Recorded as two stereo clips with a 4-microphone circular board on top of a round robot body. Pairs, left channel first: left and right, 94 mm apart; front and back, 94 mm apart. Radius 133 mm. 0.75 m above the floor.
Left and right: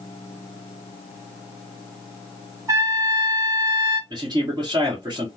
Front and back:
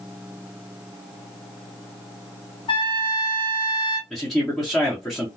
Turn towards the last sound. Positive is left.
turn(degrees=-90)